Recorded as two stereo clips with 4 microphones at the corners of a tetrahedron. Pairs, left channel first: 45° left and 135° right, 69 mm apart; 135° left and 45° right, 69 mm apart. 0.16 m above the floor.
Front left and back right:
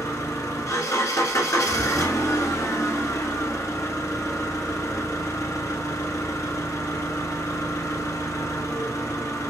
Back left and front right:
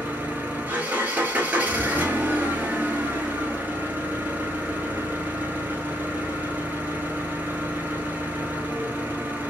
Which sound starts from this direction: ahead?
An engine running, at 0.0 s.